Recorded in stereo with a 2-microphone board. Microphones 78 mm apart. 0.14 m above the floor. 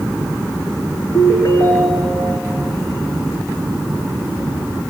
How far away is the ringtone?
About 5.5 m.